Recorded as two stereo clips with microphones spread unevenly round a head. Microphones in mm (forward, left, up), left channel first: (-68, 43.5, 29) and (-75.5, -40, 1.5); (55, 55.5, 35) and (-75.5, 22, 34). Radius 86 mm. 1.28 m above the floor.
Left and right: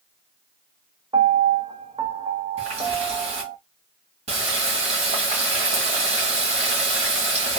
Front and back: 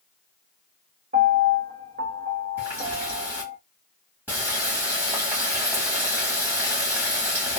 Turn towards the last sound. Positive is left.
turn(degrees=-85)